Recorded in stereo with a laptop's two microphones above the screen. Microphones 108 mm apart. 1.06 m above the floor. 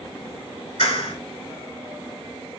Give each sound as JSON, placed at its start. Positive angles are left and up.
{"t": 0.8, "sound": "a clap", "side_deg": 60, "distance_m": 3.0}